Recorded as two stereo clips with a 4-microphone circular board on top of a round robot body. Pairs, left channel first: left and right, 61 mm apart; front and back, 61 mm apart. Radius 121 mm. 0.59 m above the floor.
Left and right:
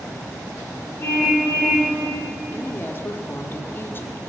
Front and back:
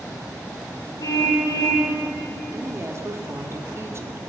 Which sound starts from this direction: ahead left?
A car horn, at 1.0 s.